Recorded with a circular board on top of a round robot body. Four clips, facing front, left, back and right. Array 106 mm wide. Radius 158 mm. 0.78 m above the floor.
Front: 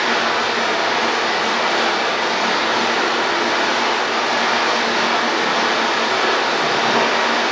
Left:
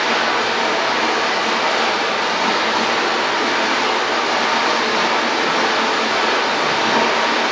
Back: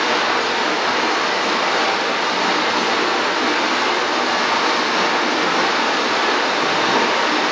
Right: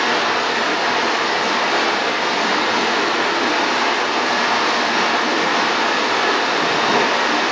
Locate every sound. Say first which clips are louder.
0.0 s running water: even, even; 90° right, 1.4 m